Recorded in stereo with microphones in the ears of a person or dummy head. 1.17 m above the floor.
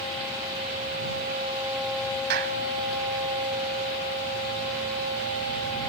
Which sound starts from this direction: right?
A clap, at 2.3 s.